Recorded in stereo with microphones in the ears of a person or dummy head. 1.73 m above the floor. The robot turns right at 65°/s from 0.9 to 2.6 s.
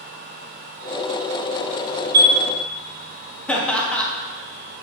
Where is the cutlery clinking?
No cutlery clinking in this recording.